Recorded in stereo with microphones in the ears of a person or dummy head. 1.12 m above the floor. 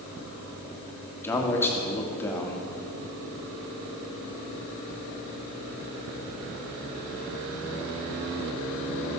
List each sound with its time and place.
1.2 s a man speaking: 15° left (ahead or behind), 2.0 m